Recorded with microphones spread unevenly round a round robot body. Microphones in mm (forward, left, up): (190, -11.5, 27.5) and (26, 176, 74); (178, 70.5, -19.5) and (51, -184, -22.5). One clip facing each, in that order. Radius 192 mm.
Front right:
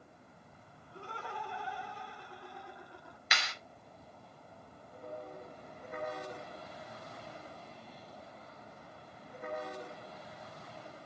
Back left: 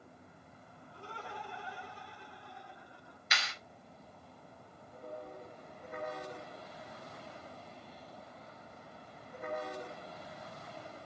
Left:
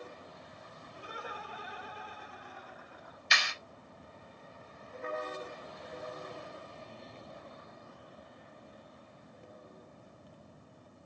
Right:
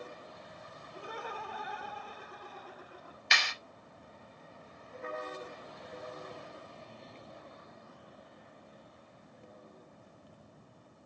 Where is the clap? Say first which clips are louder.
Front right 2 dB, right 1 dB; 85° right, 3 m.